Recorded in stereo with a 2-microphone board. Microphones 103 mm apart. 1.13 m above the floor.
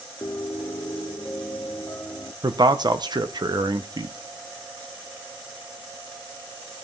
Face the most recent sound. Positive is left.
turn(degrees=-45)  # may be behind; listen again after turning